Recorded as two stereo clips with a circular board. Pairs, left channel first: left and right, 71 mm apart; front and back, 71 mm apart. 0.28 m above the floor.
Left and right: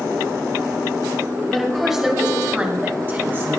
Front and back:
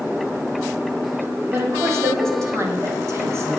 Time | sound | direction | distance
1.5 | a woman speaking | 175° left | 1.6 m